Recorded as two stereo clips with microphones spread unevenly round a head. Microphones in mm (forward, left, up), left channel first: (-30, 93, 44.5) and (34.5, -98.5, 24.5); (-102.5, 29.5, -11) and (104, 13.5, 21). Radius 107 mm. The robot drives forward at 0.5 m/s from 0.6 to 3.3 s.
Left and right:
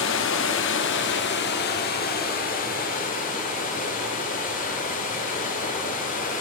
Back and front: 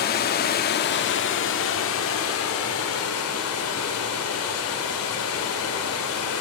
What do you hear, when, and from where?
0.0 s running water: 130° left, 1.0 m; by 6.4 s 160° left, 2 m